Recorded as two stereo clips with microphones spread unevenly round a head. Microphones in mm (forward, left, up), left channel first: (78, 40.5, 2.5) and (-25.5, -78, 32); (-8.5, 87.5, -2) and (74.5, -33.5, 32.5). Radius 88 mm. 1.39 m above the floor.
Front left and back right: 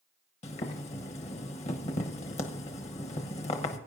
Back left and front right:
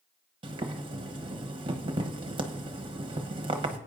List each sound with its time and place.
0.4 s boiling: 5° right, 1.0 m